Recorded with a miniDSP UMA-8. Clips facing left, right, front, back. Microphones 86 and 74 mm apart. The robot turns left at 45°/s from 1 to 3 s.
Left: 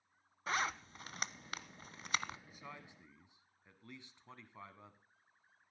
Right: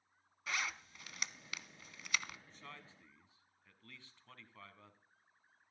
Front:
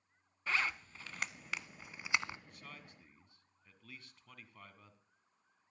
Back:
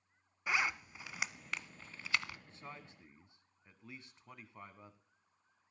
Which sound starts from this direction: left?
A zipper, at 0.5 s.